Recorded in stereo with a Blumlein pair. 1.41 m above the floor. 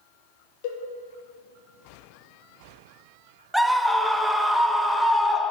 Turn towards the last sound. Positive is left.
turn(degrees=-5)